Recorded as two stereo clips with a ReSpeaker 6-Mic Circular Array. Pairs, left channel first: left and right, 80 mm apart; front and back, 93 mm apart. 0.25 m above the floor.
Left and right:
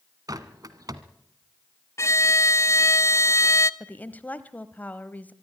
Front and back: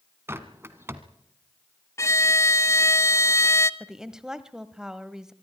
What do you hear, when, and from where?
0.3 s a bird: 120° right, 1.5 m
2.0 s a violin: 50° left, 0.7 m
3.8 s a woman speaking: 105° left, 1.1 m